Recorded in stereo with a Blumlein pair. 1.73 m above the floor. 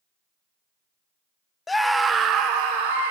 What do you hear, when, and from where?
1.7 s a scream: 15° left, 0.8 m; by 3.1 s 60° right, 1.5 m